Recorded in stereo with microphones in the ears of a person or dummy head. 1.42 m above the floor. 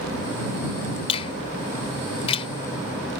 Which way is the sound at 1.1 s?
35° left (ahead or behind).